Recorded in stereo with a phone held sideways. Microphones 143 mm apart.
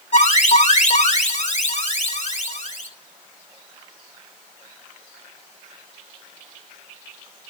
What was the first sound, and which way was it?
An alarm, 55° left (ahead or behind).